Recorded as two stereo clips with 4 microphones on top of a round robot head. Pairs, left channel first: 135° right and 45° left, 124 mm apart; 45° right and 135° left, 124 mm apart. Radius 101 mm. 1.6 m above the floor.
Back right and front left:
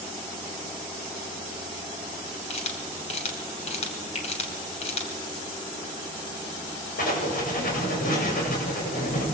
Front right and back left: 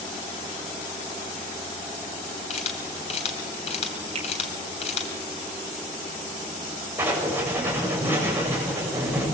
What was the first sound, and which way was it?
A camera shutter, 90° right.